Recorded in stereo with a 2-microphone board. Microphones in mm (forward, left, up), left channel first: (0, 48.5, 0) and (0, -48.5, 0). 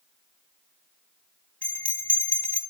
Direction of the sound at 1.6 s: 15° left (ahead or behind).